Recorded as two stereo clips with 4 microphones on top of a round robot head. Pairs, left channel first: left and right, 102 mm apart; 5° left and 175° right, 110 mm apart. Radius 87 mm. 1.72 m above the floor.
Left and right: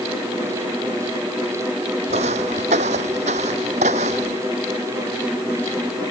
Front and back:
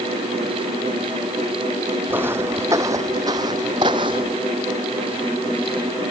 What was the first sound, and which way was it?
Footsteps, 100° right.